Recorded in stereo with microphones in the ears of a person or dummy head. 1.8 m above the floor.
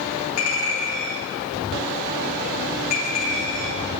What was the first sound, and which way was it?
A clink, 45° left (ahead or behind).